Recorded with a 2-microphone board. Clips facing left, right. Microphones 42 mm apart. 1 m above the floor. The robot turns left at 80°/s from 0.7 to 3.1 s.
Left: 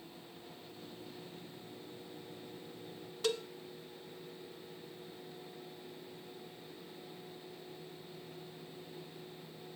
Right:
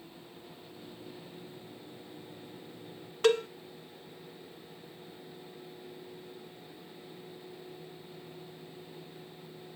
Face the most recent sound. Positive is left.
turn(degrees=-60)  # may be behind; listen again after turning